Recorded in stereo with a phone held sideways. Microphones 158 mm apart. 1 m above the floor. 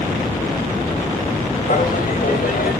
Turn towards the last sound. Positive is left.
turn(degrees=65)  # may be behind; listen again after turning